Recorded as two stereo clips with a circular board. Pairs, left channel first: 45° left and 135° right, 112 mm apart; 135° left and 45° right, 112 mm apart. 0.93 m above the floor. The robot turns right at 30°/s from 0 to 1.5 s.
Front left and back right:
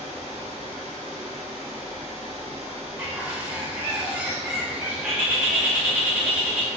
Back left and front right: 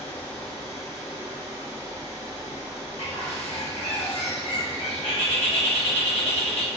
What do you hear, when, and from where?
0.0 s running water: 155° right, 0.9 m; by 6.8 s 110° right, 0.9 m
3.0 s a bird: 155° left, 0.8 m